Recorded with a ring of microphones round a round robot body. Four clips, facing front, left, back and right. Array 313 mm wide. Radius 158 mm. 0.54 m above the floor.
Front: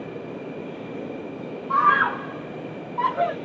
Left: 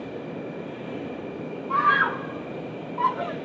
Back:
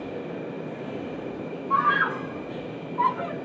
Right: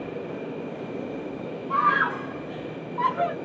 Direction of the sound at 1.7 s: 30° left.